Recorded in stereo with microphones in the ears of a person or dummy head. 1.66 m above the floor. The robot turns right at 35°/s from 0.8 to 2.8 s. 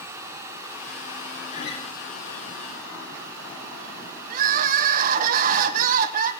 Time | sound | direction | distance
1.5 | a guitar | 50° left (ahead or behind) | 3 m
4.3 | crying | 50° right (ahead or behind) | 0.9 m